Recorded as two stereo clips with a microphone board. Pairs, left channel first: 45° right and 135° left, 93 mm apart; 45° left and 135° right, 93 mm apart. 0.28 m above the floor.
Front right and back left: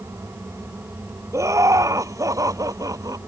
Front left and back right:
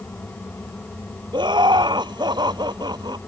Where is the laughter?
170° right; by 3.2 s 175° right.